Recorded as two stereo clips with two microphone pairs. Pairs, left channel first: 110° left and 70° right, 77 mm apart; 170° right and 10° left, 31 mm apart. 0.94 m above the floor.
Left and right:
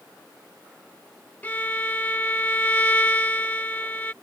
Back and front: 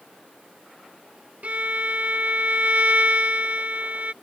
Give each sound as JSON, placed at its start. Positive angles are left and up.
{"t": 1.4, "sound": "a violin", "azimuth_deg": 45}